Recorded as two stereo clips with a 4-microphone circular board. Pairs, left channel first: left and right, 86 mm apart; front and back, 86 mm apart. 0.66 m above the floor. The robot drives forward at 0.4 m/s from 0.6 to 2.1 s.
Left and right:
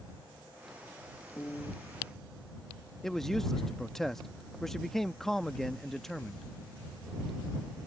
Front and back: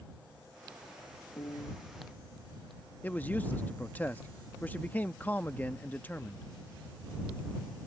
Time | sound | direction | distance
1.4 | a piano | 30° left | ?
3.0 | a man speaking | 10° left | ?